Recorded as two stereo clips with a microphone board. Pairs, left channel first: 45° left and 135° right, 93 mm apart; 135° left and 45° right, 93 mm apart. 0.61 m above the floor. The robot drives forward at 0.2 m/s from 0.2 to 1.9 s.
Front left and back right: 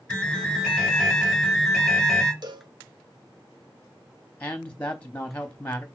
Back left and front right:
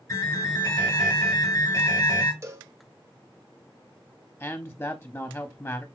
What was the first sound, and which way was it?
An alarm, 120° left.